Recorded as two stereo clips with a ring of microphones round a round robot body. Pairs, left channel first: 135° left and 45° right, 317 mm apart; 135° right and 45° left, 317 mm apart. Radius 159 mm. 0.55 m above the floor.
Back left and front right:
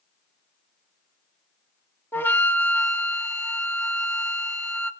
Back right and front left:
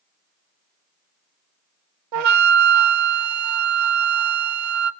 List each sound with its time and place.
2.1 s a flute: 50° left, 1.0 m